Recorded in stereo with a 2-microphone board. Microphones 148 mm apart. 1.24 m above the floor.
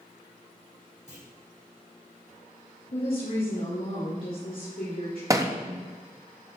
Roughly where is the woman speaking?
Left.